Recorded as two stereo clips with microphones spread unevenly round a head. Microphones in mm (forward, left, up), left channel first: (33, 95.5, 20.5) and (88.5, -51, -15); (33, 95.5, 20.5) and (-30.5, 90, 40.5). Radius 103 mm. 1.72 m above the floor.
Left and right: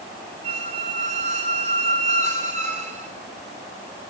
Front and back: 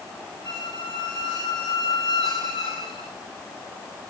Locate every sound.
0.4 s a squeak: 25° right, 4 m